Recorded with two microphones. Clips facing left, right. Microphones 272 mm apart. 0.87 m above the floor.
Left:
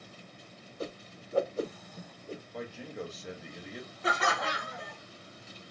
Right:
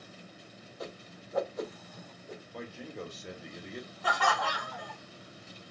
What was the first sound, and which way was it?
A whoosh, 30° left (ahead or behind).